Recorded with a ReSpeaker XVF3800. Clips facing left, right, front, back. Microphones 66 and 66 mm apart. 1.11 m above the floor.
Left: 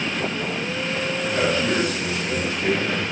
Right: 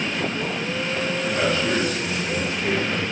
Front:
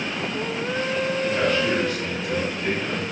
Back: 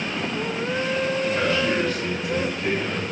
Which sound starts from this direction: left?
A man speaking, at 1.2 s.